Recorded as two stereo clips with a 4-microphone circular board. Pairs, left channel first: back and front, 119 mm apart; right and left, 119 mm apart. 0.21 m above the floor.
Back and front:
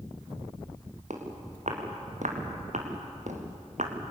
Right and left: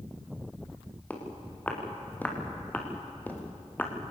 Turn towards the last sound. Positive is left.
turn(degrees=-15)